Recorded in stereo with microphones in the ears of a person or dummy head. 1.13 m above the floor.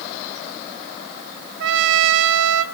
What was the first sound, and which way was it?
A trumpet, 75° right (ahead or behind).